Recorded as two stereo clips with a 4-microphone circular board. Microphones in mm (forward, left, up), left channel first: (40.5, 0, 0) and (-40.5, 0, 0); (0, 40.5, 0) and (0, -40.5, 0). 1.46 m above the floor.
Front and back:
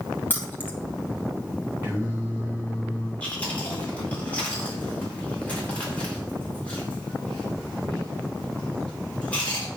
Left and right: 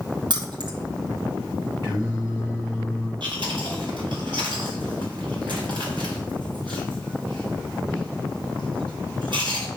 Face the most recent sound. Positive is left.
turn(degrees=-75)